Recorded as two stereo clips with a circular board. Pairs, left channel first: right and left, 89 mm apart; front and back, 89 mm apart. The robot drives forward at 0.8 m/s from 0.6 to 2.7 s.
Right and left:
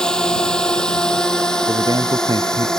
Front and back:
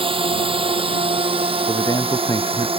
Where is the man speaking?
45° left; by 2.7 s 50° left.